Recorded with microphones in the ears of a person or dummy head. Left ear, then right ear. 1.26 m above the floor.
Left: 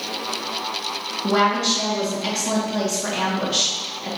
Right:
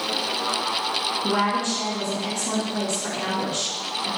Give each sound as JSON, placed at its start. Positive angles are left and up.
{"t": 1.2, "sound": "a woman speaking", "side_deg": 25, "distance_m": 1.1}